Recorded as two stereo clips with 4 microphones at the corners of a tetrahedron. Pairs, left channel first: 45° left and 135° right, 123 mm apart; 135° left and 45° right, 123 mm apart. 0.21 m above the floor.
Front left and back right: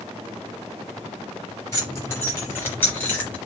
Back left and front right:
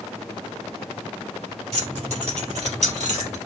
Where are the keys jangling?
20° right, 3 m; by 3.4 s 35° right, 3 m.